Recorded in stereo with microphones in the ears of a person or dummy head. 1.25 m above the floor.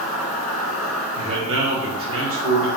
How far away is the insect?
About 1.5 m.